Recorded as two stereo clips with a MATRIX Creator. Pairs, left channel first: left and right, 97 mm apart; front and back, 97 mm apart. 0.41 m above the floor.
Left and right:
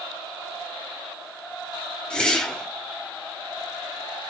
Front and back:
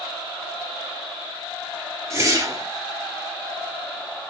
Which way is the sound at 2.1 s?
160° left.